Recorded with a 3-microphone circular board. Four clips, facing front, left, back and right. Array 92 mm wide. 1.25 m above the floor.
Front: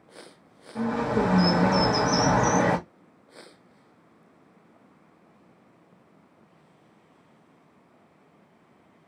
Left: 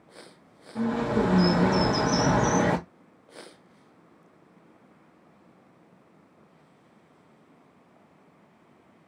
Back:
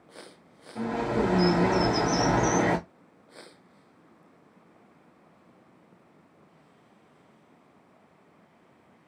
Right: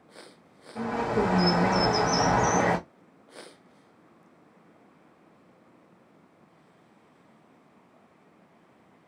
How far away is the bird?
About 1.7 m.